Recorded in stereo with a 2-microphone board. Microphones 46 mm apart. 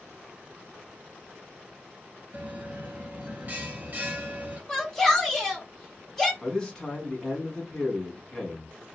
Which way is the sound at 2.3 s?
35° right (ahead or behind).